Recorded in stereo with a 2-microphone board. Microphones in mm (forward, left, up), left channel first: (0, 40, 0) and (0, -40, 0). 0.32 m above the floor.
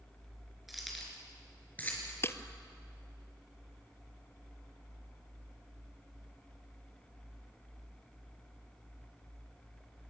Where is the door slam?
No door slam in this recording.